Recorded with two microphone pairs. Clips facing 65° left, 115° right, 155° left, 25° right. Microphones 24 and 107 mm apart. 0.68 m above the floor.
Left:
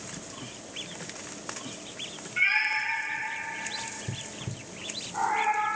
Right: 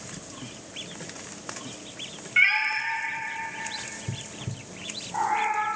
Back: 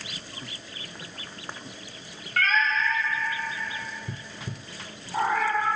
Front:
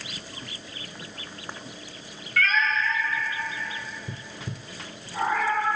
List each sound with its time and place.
2.4 s a cat meowing: 160° right, 1.1 m; by 5.7 s 170° right, 3 m